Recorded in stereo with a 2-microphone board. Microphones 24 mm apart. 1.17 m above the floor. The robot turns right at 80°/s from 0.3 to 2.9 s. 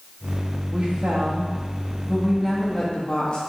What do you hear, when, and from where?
0.7 s a woman speaking: 140° right, 1.7 m; by 3.4 s 35° left, 1.7 m